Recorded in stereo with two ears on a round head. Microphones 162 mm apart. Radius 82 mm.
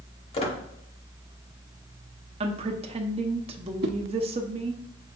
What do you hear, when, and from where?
0.3 s a squeak: 35° left (ahead or behind), 0.8 m
2.4 s a woman speaking: 35° right (ahead or behind), 0.6 m
3.8 s a whoosh: 65° right (ahead or behind), 0.5 m